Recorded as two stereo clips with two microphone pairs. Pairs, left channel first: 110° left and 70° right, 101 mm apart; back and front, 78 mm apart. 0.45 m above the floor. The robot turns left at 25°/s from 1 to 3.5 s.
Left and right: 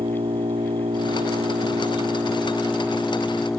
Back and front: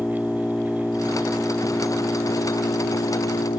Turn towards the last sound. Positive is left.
turn(degrees=-165)